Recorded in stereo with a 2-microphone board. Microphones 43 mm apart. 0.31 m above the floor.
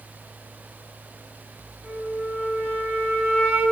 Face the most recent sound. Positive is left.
turn(degrees=-60)  # may be behind; listen again after turning